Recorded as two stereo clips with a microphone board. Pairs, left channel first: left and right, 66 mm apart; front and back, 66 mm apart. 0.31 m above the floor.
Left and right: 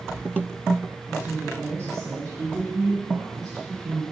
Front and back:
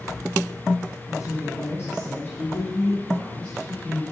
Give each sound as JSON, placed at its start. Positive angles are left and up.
{"t": 1.1, "sound": "a woman speaking", "azimuth_deg": -25, "distance_m": 3.5}